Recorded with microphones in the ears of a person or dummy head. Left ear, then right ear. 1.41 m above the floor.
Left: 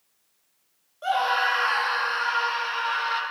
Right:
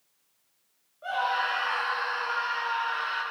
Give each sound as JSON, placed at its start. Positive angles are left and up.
{"t": 1.0, "sound": "a scream", "side_deg": 85, "distance_m": 2.5}